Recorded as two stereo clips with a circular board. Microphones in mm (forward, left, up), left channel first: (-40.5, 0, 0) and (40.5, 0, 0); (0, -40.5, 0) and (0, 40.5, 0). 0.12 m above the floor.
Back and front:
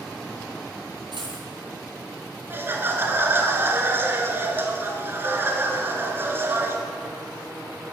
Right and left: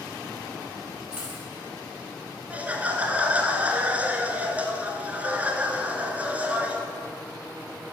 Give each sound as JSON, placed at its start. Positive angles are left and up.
{"t": 1.1, "sound": "a dropped coin", "azimuth_deg": 15, "distance_m": 3.5}
{"t": 2.5, "sound": "laughter", "azimuth_deg": 35, "distance_m": 1.3}